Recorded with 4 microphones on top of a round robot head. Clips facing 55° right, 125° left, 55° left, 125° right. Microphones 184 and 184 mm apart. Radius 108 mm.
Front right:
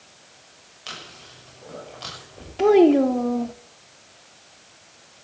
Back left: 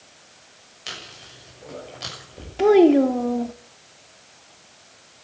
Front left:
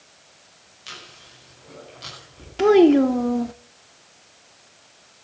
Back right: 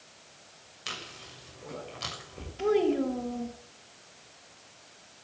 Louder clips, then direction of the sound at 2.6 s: Back left 1 dB, front left 12 dB; 40° left.